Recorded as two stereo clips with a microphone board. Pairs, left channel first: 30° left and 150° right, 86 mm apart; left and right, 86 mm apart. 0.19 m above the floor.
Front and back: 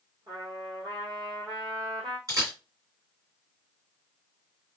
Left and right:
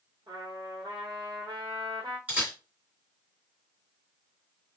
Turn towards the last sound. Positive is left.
turn(degrees=-150)